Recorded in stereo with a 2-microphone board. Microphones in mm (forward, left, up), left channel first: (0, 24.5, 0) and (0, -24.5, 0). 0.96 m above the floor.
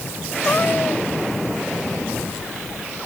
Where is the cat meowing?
35° left (ahead or behind).